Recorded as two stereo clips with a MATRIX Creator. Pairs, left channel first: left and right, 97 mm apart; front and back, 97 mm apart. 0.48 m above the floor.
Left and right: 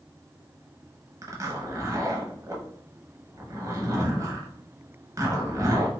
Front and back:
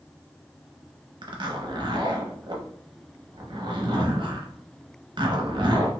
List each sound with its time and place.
1.2 s a zipper: 145° right, 0.8 m